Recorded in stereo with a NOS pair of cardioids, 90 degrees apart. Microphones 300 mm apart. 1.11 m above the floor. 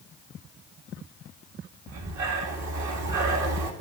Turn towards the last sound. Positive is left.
turn(degrees=-70)